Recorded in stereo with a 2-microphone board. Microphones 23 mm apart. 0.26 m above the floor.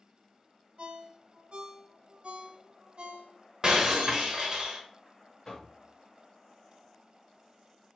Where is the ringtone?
55° right (ahead or behind), 0.7 m.